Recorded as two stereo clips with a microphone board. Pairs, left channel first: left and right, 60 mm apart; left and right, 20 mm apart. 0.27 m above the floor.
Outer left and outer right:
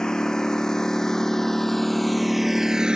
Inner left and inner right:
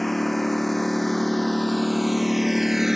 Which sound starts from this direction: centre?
A lawn mower, at 0.0 s.